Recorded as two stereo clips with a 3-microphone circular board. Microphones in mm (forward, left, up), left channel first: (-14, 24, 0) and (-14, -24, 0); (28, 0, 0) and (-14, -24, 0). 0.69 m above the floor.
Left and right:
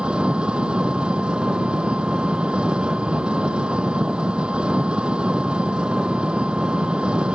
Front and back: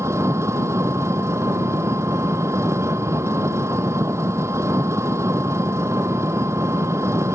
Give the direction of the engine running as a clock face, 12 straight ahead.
5 o'clock.